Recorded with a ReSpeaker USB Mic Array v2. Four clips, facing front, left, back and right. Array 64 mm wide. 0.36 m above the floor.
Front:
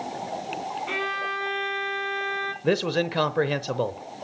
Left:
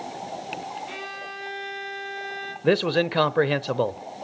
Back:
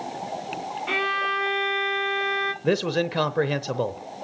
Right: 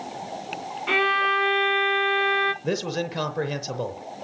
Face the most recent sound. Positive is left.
turn(degrees=85)